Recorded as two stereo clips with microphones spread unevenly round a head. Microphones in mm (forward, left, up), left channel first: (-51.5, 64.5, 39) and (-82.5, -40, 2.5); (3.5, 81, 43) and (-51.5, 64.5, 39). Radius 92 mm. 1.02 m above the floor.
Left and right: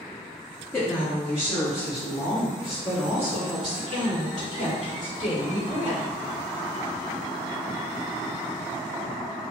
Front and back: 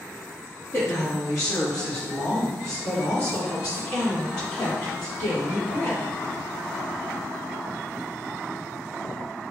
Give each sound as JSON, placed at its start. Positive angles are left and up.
{"t": 0.7, "sound": "a woman speaking", "azimuth_deg": -20, "distance_m": 1.1}